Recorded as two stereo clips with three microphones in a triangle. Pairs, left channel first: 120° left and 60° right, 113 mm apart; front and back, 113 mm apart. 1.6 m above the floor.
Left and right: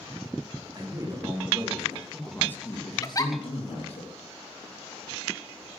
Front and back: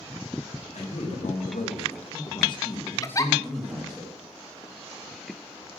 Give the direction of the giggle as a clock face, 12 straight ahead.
10 o'clock.